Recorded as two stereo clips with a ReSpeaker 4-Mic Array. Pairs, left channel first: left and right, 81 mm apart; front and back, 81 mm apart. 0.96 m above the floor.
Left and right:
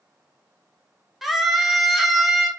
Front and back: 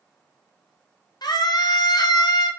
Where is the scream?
Straight ahead, 1.0 m.